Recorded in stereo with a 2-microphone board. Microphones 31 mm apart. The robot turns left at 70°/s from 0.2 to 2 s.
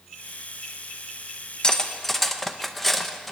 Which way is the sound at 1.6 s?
20° left (ahead or behind).